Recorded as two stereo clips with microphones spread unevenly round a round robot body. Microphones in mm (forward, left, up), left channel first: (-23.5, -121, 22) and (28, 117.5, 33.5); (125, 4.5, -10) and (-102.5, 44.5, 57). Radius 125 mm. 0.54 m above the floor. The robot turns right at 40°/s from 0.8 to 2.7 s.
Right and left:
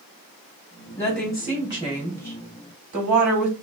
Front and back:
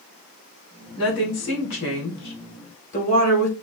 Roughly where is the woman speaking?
Ahead right.